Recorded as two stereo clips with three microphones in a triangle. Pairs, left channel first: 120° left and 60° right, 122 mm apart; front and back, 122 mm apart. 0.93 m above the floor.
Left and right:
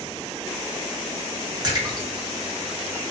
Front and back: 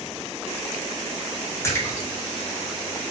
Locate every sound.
1.6 s a splash: 45° right, 0.6 m